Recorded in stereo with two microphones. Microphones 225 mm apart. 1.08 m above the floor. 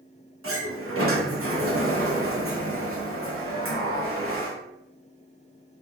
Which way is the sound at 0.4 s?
70° right (ahead or behind).